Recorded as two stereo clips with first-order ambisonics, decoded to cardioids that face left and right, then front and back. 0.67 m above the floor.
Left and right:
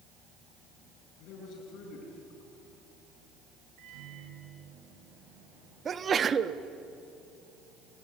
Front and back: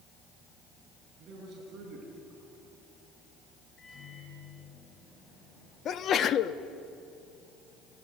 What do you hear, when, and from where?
1.2 s a man speaking: 125° left, 8.5 m
3.8 s a microwave: 65° right, 9.5 m
5.8 s a sneeze: 35° right, 0.6 m